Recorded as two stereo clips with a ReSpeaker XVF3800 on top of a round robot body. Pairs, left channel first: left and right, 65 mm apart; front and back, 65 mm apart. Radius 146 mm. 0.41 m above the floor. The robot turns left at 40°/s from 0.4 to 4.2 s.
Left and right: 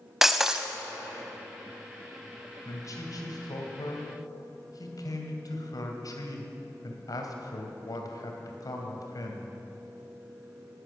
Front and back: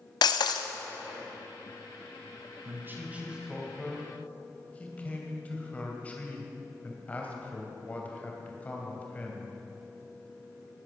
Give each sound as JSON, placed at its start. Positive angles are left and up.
{"t": 0.2, "sound": "breaking glass", "azimuth_deg": -5, "distance_m": 0.5}
{"t": 2.6, "sound": "a man speaking", "azimuth_deg": 130, "distance_m": 2.5}